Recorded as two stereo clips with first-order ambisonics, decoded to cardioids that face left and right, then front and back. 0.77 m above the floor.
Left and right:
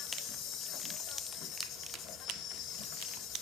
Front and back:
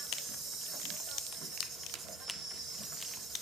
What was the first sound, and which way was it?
An insect, 125° left.